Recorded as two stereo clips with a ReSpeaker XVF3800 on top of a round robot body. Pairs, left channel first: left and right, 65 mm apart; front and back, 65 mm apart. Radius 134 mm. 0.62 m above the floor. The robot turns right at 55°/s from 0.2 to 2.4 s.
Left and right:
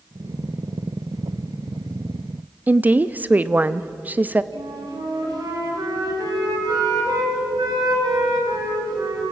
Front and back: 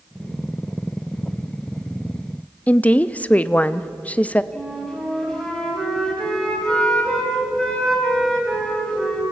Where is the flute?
80° right, 4.5 m.